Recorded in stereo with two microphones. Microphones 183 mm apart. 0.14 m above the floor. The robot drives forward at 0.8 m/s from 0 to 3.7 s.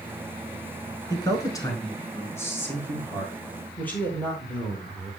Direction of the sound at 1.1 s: 20° left (ahead or behind).